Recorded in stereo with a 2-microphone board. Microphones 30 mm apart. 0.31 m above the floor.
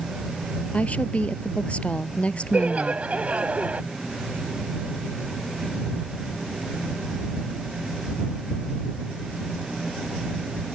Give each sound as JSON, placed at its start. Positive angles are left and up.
{"t": 0.7, "sound": "a woman speaking", "side_deg": 50}
{"t": 2.5, "sound": "laughter", "side_deg": -50}